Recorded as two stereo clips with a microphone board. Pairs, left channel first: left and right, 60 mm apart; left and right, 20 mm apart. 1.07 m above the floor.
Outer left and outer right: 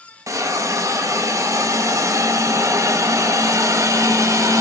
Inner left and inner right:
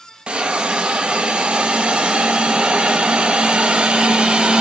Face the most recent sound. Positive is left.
turn(degrees=-60)  # may be behind; listen again after turning